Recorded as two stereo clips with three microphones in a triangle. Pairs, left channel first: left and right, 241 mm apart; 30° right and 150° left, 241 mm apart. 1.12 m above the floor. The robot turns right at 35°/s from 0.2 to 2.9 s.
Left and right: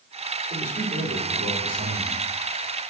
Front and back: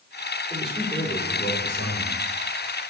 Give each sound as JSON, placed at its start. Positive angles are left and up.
{"t": 0.5, "sound": "a man speaking", "azimuth_deg": -130, "distance_m": 4.0}